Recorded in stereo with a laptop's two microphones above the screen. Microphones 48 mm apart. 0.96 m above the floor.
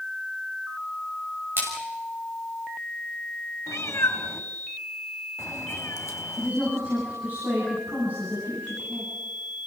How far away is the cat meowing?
About 1.9 m.